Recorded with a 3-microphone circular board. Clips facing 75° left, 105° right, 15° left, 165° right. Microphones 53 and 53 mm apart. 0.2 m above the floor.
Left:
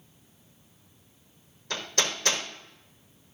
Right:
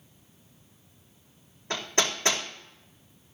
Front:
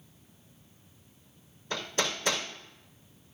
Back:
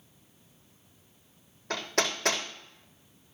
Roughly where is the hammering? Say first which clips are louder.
Right 2 dB, back 2 dB; behind.